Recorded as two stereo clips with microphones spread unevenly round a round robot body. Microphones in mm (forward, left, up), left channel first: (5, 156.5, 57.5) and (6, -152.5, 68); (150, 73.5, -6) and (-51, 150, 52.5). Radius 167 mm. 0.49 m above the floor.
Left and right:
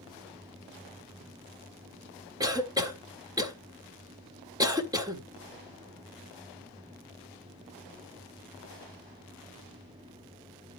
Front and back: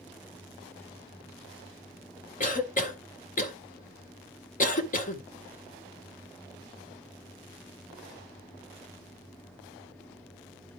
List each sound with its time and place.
2.4 s a cough: 15° right, 1.6 m